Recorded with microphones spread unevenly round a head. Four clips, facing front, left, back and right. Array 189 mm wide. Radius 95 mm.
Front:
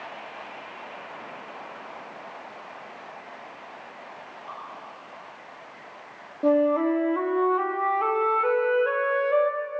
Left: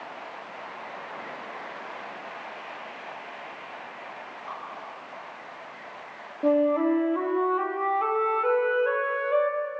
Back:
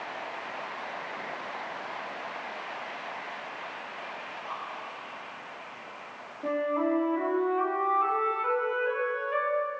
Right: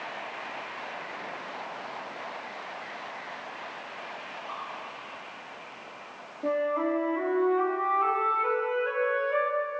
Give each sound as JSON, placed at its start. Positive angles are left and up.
{"t": 4.5, "sound": "dripping", "azimuth_deg": 70, "distance_m": 8.5}
{"t": 6.4, "sound": "a flute", "azimuth_deg": 35, "distance_m": 2.0}